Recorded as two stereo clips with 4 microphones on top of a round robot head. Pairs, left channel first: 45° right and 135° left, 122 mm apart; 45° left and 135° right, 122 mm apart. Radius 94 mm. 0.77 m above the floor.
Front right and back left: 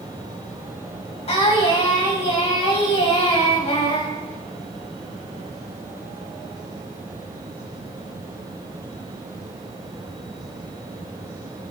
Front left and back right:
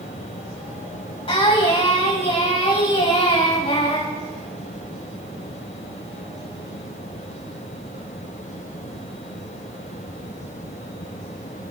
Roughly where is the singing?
Ahead.